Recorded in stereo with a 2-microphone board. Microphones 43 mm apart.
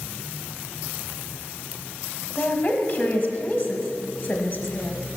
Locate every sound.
2.4 s a woman speaking: 25° left (ahead or behind), 1.0 m